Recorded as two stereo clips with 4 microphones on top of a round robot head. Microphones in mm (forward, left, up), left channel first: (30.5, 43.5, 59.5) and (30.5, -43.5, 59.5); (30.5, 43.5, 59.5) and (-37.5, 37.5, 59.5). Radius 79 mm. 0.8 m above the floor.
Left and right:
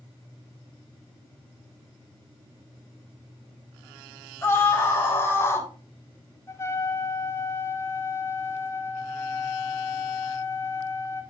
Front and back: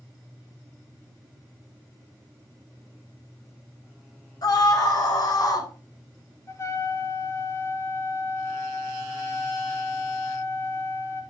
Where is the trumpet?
40° left, 1.7 m.